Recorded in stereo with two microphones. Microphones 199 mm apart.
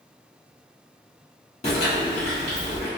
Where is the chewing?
35° left (ahead or behind), 1.2 m.